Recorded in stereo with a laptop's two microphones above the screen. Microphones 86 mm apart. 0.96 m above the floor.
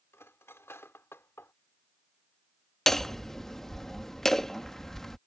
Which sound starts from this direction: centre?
Hammering, at 2.9 s.